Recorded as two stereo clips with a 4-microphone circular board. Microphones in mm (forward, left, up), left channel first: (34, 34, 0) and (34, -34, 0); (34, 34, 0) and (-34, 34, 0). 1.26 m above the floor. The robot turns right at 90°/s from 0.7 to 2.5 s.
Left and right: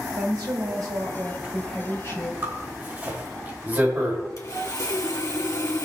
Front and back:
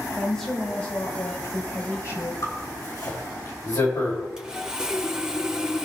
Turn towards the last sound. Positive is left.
turn(degrees=100)